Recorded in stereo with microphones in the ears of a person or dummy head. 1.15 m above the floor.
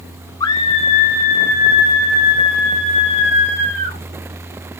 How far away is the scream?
About 0.8 m.